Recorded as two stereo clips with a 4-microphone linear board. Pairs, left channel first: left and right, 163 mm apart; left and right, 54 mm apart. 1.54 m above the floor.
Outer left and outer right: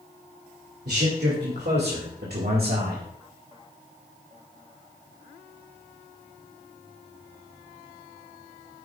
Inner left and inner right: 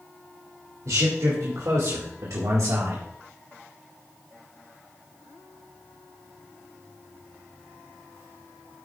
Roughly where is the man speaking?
Right.